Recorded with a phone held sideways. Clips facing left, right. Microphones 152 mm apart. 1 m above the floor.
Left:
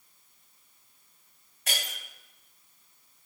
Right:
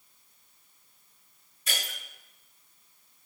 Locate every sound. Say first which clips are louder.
1.7 s breaking glass: left 1 dB; 75° left (ahead or behind), 3 m